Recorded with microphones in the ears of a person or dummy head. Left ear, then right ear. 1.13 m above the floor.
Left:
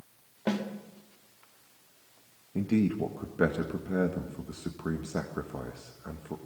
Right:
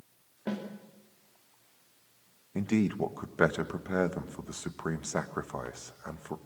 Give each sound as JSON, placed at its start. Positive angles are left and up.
{"t": 0.5, "sound": "a snare drum", "side_deg": 15, "distance_m": 2.5}
{"t": 2.5, "sound": "a man speaking", "side_deg": -40, "distance_m": 1.4}